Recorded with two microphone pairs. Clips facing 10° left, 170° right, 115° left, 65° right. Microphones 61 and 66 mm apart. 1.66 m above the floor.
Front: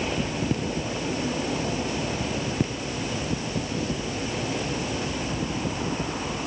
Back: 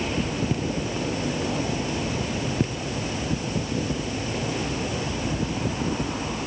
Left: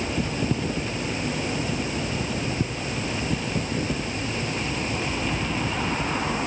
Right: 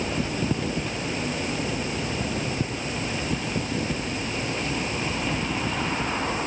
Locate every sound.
Only background noise.